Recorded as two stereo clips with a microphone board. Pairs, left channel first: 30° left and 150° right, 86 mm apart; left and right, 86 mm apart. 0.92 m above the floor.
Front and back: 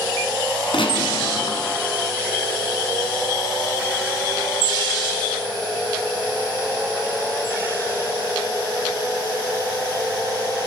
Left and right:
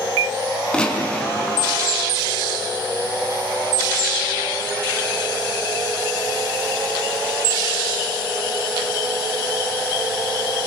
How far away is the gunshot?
About 4 m.